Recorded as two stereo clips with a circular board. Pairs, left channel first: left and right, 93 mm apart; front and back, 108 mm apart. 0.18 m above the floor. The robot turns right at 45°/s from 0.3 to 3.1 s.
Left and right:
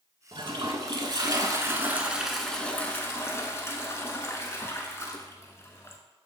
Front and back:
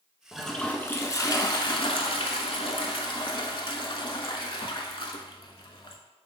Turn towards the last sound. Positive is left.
turn(degrees=30)